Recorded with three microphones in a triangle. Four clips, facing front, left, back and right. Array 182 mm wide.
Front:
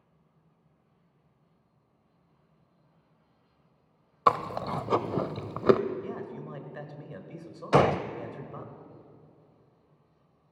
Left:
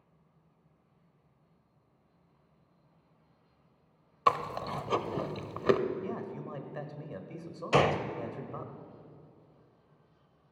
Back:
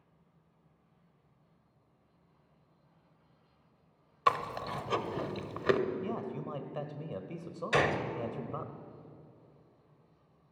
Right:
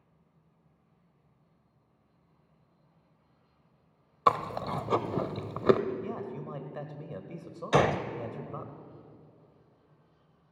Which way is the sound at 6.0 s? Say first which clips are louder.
Right 1 dB, back 1 dB; 160° right.